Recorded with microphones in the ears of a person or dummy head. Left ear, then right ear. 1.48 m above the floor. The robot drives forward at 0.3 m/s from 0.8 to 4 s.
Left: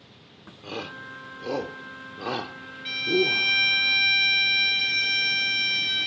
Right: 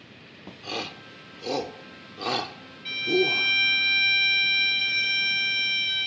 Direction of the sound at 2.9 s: 5° right (ahead or behind).